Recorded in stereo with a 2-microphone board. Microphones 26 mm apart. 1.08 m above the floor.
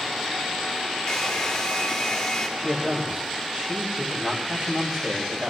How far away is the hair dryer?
About 1.8 m.